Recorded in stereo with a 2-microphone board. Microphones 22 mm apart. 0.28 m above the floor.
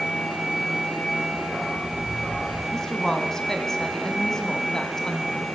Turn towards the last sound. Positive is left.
turn(degrees=25)  # may be behind; listen again after turning